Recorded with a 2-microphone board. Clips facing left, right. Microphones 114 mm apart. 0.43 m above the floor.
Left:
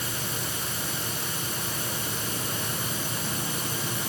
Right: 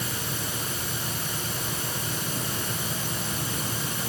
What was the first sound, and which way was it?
Only background noise.